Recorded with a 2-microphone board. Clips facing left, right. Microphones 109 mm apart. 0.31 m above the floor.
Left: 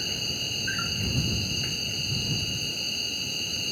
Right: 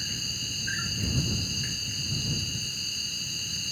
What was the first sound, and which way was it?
An insect, 60° left (ahead or behind).